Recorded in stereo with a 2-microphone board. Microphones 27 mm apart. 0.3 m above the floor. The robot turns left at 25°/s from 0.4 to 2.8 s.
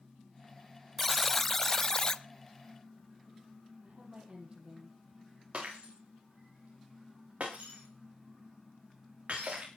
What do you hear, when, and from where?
1.0 s a buzzer: 175° left, 0.7 m; by 2.2 s 140° left, 0.7 m
3.8 s a woman speaking: 45° right (ahead or behind), 8 m
5.5 s breaking glass: 55° right (ahead or behind), 10 m